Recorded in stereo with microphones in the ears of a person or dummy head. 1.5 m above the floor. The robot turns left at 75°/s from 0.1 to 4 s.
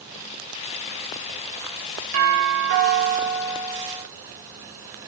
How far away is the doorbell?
About 6 m.